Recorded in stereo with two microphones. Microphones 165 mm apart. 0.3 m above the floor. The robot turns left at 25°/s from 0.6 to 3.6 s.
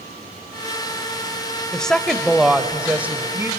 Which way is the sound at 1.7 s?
5° left (ahead or behind).